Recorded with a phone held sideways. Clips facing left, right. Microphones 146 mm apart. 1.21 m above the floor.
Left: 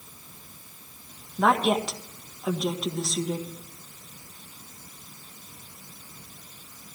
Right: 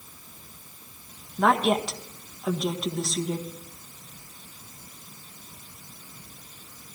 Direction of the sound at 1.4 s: 5° left (ahead or behind).